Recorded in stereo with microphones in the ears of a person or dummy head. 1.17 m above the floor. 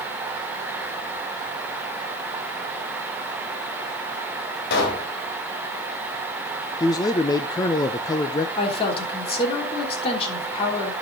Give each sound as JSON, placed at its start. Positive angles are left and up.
{"t": 4.7, "sound": "a pop", "side_deg": 65, "distance_m": 3.0}
{"t": 6.8, "sound": "a man speaking", "side_deg": 20, "distance_m": 0.7}
{"t": 8.6, "sound": "a woman speaking", "side_deg": 35, "distance_m": 3.0}